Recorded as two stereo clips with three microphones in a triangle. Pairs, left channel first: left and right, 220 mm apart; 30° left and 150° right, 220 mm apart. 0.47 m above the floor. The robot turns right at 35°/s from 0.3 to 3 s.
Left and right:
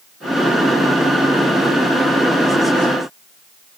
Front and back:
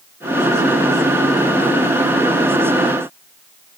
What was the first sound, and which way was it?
Only background noise.